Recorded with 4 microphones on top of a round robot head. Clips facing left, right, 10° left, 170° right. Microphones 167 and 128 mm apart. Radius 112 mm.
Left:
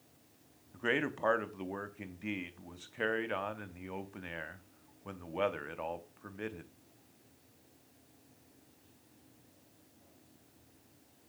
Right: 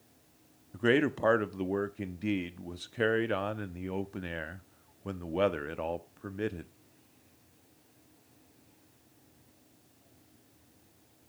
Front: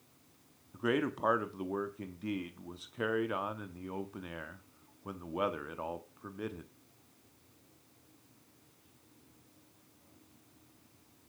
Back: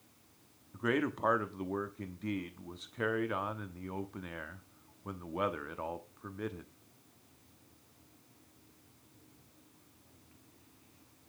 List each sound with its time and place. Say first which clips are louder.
0.7 s a man speaking: right 8 dB, even; 70° right, 0.8 m